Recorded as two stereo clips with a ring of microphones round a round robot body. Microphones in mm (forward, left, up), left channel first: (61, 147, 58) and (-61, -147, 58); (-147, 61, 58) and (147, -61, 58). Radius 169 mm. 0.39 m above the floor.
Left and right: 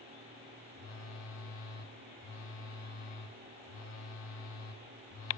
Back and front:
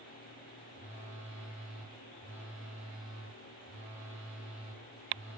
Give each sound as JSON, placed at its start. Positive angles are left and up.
{"t": 0.7, "sound": "a phone buzzing", "azimuth_deg": 35, "distance_m": 1.0}